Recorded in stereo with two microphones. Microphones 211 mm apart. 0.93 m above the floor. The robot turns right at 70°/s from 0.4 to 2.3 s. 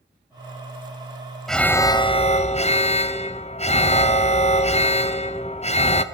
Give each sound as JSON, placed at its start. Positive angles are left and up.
{"t": 1.5, "sound": "an alarm", "azimuth_deg": 0, "distance_m": 0.7}